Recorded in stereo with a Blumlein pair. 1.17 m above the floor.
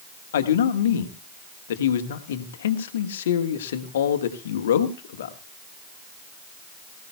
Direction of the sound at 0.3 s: 60° left.